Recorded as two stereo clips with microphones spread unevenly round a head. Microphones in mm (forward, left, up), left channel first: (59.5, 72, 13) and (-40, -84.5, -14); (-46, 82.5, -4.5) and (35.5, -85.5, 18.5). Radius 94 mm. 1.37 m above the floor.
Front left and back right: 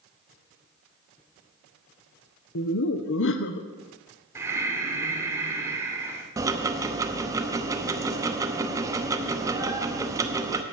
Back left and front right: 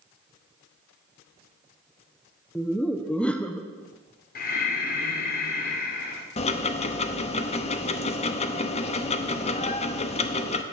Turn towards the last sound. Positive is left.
turn(degrees=165)